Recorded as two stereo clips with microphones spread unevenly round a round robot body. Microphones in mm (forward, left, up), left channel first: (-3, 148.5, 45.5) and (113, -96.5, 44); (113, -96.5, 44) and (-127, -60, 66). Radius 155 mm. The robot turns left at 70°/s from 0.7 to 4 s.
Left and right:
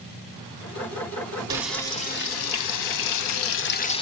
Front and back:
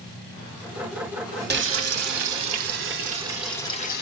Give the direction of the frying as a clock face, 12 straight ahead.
5 o'clock.